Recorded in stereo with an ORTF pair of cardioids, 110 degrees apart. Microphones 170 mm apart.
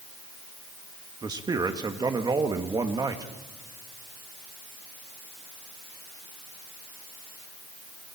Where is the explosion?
I don't hear an explosion.